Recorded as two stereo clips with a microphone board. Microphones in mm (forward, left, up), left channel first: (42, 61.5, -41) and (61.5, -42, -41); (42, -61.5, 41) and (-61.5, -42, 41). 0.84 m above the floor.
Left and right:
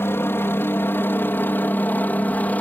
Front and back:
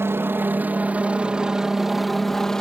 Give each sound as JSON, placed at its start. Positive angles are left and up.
{"t": 0.0, "sound": "a helicopter", "azimuth_deg": 135}